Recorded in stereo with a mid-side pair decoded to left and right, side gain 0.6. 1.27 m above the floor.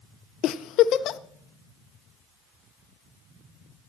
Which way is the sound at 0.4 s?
55° left.